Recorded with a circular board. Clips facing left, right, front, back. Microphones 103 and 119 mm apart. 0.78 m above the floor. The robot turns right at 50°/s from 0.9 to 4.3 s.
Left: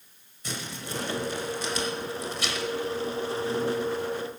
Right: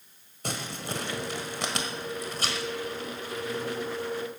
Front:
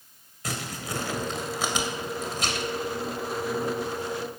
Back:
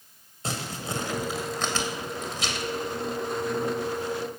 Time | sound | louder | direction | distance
0.4 | crumpling | right 2 dB, back 1 dB | 120° right | 2.0 m